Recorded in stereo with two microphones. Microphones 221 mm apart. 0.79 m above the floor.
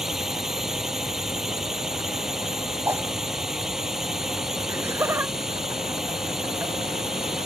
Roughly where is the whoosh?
Centre.